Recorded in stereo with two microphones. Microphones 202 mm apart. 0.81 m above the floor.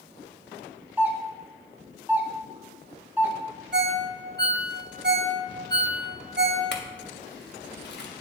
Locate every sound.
1.0 s a doorbell: 10° right (ahead or behind), 0.8 m
3.7 s a ringtone: 55° right (ahead or behind), 0.6 m
6.7 s a clink: 60° left (ahead or behind), 0.8 m